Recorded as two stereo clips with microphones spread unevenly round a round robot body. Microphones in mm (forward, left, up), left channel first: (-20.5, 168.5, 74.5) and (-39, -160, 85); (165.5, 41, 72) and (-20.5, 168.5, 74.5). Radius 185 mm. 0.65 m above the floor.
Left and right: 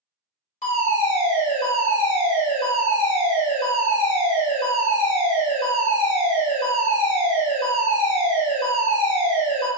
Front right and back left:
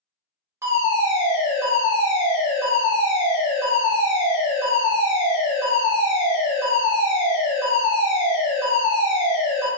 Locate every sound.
0.6 s a fire alarm: 85° left, 1.6 m